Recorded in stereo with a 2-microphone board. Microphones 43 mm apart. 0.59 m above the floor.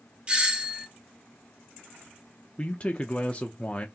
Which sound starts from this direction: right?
A doorbell, at 0.3 s.